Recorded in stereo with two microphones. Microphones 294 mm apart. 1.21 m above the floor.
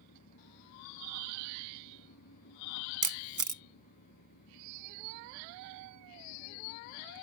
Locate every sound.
0.0 s an engine running: 90° left
3.0 s a camera shutter: 80° right